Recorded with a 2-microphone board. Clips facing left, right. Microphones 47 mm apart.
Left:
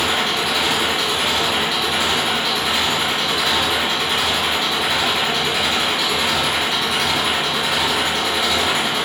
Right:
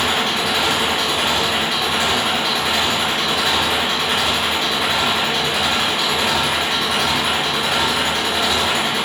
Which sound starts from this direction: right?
An engine running, at 0.0 s.